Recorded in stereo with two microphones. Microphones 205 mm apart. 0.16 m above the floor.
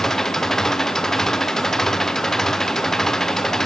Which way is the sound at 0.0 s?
Centre (ahead or behind).